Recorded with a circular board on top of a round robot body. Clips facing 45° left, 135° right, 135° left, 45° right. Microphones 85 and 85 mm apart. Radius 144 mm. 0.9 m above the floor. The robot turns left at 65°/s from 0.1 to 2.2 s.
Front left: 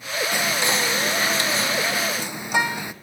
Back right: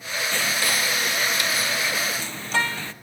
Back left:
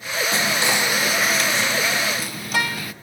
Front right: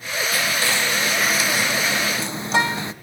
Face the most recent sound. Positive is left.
turn(degrees=-15)